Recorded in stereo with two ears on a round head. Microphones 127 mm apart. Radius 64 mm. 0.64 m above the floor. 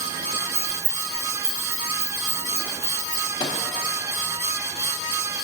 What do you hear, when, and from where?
0.6 s keys jangling: 15° right (ahead or behind), 1.0 m; by 3.2 s 50° right (ahead or behind), 4 m
3.4 s a microwave: 30° left (ahead or behind), 0.6 m